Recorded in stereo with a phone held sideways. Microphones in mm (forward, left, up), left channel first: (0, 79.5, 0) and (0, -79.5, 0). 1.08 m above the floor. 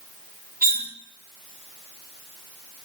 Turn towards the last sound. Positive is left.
turn(degrees=-60)  # may be behind; listen again after turning